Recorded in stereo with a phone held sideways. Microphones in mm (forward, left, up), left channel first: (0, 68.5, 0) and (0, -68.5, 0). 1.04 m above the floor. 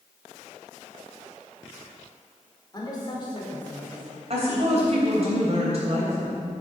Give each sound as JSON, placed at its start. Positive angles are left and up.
{"t": 2.7, "sound": "a woman speaking", "side_deg": 30, "distance_m": 3.5}
{"t": 4.3, "sound": "a woman speaking", "side_deg": -50, "distance_m": 4.5}